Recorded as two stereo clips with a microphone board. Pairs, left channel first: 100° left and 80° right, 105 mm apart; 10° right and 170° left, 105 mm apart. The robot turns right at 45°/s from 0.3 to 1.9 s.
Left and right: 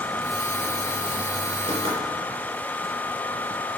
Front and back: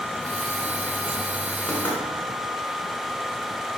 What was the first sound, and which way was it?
Knocking, 90° right.